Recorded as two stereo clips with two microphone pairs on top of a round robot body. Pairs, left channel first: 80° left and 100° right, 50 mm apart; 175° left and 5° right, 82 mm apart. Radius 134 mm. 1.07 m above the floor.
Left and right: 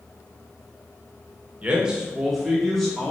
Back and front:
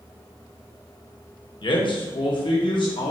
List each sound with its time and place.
1.6 s a man speaking: 170° right, 1.7 m; by 3.1 s 160° left, 2.5 m